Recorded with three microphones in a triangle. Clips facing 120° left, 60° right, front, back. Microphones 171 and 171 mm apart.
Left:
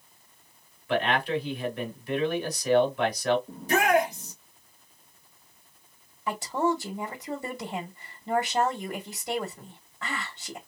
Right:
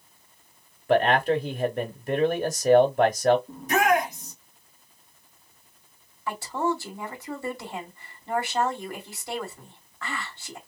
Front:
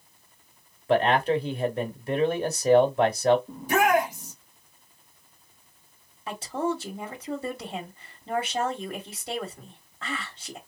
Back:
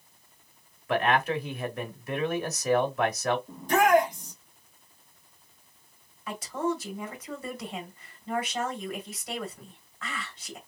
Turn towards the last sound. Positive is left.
turn(degrees=55)